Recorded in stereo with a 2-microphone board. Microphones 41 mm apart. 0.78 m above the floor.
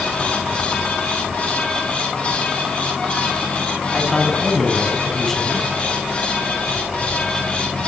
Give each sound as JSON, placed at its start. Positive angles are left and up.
{"t": 3.9, "sound": "a man speaking", "side_deg": 10, "distance_m": 6.0}